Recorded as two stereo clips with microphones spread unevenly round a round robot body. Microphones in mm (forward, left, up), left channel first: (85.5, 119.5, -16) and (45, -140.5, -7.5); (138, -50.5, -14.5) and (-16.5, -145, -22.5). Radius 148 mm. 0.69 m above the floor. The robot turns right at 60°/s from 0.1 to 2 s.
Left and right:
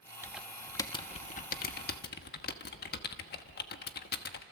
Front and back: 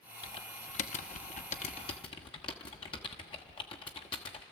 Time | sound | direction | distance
0.2 | typing on a keyboard | 20° right | 1.0 m